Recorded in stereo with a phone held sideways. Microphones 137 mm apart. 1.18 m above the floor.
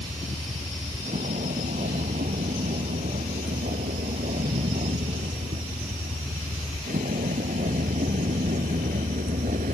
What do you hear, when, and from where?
0.0 s a vehicle: 75° right (ahead or behind); by 9.7 s 80° right